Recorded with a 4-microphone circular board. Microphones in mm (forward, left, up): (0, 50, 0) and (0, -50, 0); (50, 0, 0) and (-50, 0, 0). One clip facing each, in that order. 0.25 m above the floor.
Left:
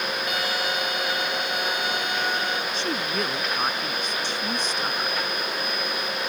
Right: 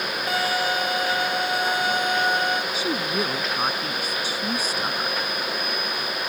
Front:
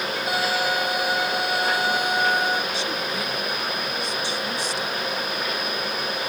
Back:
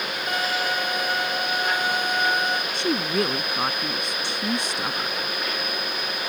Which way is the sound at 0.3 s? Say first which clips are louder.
Right 7 dB, front 2 dB; 75° right.